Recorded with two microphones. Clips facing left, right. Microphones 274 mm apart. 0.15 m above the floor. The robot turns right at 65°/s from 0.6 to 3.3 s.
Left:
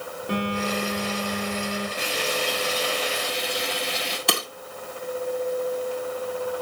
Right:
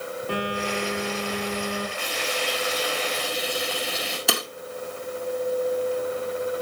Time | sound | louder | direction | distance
0.3 | a phone buzzing | left 3 dB | 160° left | 7.5 m
2.0 | frying | left 2 dB | 100° left | 5.5 m
4.3 | breaking glass | even | centre (ahead or behind) | 1.8 m